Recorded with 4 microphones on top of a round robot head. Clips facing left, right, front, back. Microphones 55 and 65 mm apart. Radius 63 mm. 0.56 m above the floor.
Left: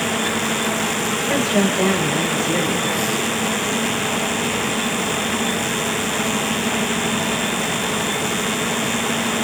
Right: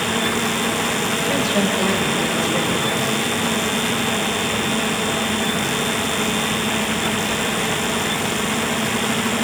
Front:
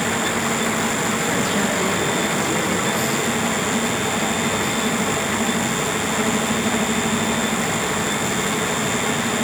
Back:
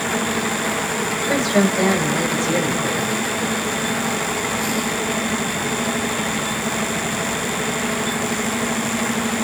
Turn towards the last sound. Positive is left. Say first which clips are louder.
# left 2 dB, back 3 dB
turn(degrees=170)